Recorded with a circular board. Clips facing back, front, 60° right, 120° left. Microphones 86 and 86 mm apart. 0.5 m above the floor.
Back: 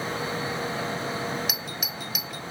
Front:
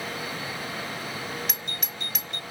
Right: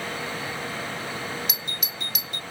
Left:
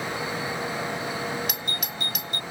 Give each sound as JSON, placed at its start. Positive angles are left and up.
{"t": 1.5, "sound": "a doorbell", "azimuth_deg": 95}